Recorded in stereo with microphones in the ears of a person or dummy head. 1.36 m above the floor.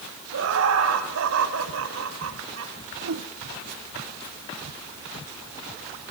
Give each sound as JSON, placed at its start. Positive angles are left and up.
{"t": 0.3, "sound": "laughter", "side_deg": -80, "distance_m": 6.0}
{"t": 3.0, "sound": "a whoosh", "side_deg": -85, "distance_m": 1.6}